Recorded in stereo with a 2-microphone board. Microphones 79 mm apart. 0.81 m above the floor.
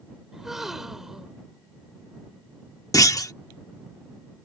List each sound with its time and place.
0.3 s a gasp: 5° right (ahead or behind)
2.9 s a clunk: 45° left (ahead or behind)